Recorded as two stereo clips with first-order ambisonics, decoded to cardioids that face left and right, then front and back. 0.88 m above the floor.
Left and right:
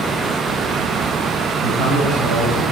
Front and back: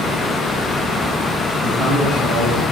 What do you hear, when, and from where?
1.6 s a man speaking: 115° right, 5.5 m